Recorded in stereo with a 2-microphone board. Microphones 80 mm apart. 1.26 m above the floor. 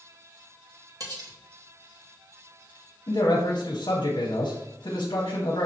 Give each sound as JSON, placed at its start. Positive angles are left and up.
{"t": 1.0, "sound": "cutlery clinking", "side_deg": -50, "distance_m": 0.9}
{"t": 3.1, "sound": "a man speaking", "side_deg": 70, "distance_m": 0.8}